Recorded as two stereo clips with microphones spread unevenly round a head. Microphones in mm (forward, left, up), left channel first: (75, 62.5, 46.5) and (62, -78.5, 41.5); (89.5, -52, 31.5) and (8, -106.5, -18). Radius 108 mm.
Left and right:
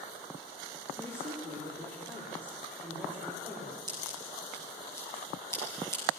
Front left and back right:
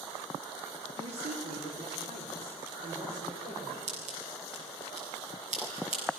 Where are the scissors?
165° right, 7.5 m.